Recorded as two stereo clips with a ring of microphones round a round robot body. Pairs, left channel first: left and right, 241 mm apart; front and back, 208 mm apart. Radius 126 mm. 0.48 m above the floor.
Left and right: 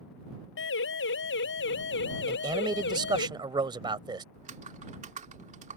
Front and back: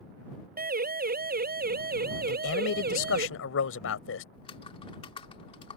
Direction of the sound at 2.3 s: 20° right.